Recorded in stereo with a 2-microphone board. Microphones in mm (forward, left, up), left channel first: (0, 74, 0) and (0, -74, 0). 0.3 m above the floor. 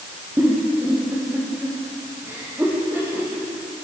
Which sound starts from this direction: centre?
A giggle, at 0.4 s.